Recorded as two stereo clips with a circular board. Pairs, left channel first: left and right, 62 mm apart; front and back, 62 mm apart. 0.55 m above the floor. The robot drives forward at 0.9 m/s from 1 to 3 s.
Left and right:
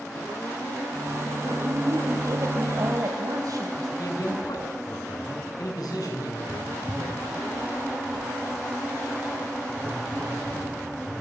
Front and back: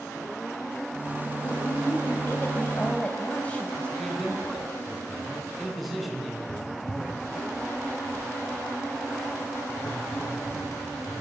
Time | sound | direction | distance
1.4 | a woman speaking | 45° right | 3.5 m
4.0 | a man speaking | 90° left | 6 m
6.5 | writing | 40° right | 7.5 m